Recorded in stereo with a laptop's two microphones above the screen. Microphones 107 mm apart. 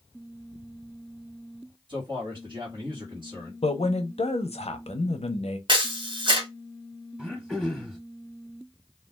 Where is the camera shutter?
50° right (ahead or behind), 0.7 m.